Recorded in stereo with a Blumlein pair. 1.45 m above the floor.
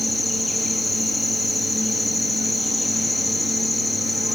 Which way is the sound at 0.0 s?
5° left.